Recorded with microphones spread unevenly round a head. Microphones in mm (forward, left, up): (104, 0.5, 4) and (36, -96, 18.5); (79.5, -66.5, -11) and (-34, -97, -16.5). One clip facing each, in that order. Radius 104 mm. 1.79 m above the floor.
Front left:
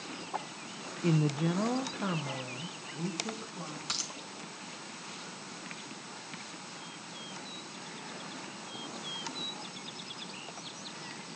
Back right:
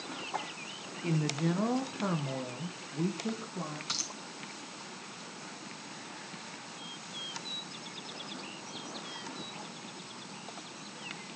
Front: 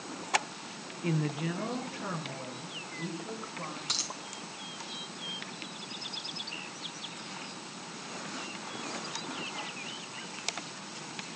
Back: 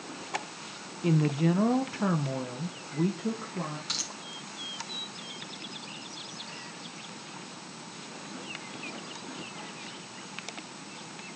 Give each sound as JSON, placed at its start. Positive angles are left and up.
{"t": 1.0, "sound": "a woman speaking", "azimuth_deg": 120, "distance_m": 0.7}
{"t": 3.9, "sound": "a dropped coin", "azimuth_deg": -20, "distance_m": 3.5}